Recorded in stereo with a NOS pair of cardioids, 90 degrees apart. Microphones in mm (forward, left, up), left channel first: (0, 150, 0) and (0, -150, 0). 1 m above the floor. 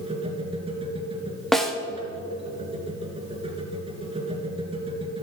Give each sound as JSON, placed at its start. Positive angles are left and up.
{"t": 0.0, "sound": "a machine running", "azimuth_deg": -20, "distance_m": 3.0}
{"t": 1.5, "sound": "a snare drum", "azimuth_deg": 0, "distance_m": 1.5}